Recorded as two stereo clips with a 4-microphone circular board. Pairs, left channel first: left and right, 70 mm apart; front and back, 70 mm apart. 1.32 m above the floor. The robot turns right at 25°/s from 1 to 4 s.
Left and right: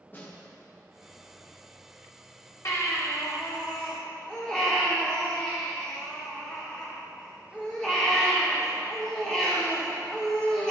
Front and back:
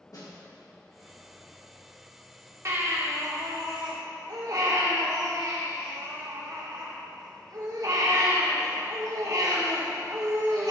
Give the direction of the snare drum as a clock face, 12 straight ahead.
11 o'clock.